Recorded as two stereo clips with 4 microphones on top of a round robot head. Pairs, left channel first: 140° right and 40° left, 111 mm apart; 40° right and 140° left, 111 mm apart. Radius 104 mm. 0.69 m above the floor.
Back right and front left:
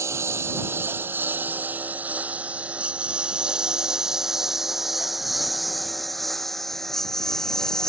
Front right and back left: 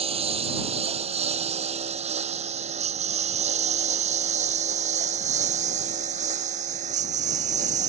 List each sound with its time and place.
0.0 s a lawn mower: 105° left; by 7.9 s 135° left